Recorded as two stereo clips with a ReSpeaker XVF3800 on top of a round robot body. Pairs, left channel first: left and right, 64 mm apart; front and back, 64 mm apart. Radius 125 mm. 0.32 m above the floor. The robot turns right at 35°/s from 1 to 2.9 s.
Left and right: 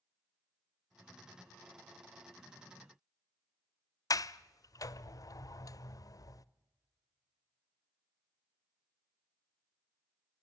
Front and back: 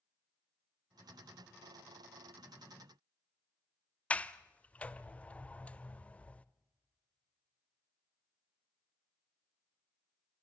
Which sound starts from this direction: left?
A sliding door, at 4.1 s.